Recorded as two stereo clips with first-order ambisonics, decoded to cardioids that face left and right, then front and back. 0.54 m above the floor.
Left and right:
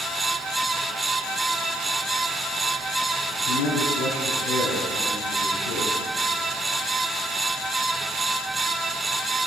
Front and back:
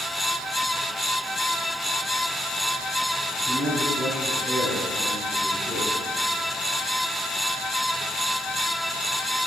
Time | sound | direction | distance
3.3 | a man speaking | 95° left | 5 m